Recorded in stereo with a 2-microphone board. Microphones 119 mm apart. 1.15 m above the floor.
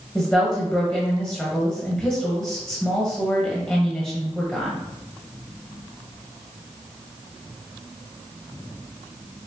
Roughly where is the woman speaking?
Centre.